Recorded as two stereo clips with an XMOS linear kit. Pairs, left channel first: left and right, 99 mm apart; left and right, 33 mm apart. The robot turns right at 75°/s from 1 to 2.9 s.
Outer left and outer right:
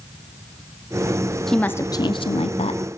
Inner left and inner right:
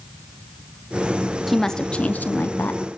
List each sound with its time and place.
1.5 s a woman speaking: 5° left, 0.6 m; by 2.8 s 105° left, 0.6 m